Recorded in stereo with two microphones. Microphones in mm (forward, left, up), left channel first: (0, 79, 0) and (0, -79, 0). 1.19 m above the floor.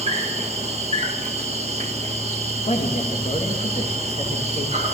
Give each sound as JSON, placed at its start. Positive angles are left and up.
{"t": 0.0, "sound": "an insect", "side_deg": -45, "distance_m": 1.6}
{"t": 2.7, "sound": "a man speaking", "side_deg": 45, "distance_m": 2.0}